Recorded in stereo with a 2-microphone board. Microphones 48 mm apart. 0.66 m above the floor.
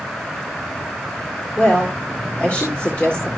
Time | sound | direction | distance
1.6 | a woman speaking | 30° left (ahead or behind) | 1.8 m